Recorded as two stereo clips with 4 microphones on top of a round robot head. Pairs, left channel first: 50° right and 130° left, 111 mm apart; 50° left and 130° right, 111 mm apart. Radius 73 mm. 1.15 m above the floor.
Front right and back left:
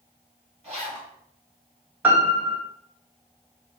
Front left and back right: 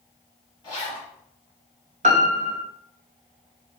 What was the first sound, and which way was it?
A zipper, 100° left.